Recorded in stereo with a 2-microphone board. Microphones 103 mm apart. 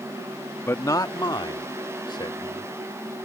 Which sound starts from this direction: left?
A man speaking, at 0.7 s.